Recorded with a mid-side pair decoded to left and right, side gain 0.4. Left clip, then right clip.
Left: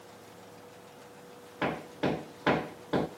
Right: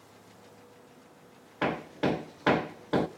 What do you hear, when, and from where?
1.6 s hammering: 25° right, 0.5 m